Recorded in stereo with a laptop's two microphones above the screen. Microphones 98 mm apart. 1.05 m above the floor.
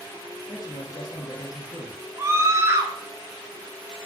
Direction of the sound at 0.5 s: 40° left (ahead or behind).